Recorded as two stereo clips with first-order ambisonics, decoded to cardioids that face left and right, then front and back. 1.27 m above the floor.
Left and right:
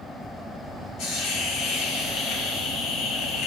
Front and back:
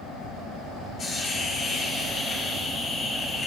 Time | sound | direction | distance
1.0 | a hiss | 60° left | 3.5 m